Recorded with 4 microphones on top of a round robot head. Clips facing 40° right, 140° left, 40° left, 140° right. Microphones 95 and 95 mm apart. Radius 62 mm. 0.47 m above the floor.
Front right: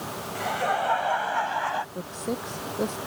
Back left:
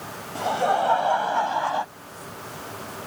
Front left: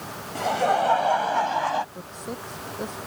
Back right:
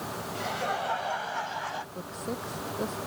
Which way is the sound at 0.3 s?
80° left.